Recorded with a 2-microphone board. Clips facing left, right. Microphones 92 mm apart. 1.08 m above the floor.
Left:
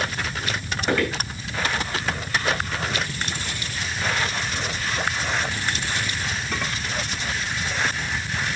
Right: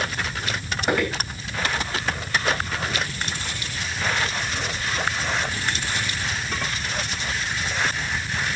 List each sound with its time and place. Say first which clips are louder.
0.9 s footsteps: even; 10° right (ahead or behind), 3.5 m